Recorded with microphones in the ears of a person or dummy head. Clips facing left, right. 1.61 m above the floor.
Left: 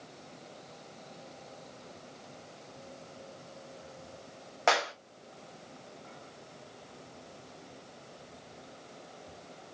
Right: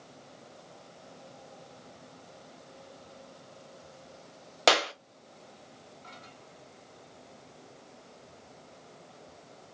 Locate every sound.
4.7 s a clap: 45° right (ahead or behind), 1.0 m